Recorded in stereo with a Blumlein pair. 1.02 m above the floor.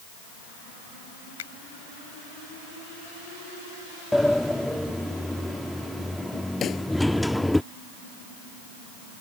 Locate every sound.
1.4 s a finger snap: 60° left
4.1 s a sliding door: 5° left
6.6 s a pop: 25° left